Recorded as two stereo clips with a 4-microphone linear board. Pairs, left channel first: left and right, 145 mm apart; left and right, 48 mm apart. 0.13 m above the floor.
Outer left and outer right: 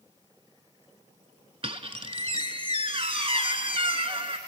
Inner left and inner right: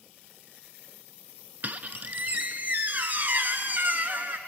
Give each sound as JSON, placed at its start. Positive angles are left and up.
{"t": 1.6, "sound": "a squeak", "side_deg": -40, "distance_m": 0.8}